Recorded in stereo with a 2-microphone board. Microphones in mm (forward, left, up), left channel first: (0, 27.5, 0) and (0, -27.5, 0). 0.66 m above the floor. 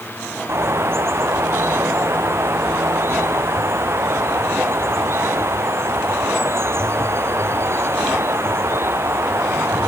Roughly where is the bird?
Right.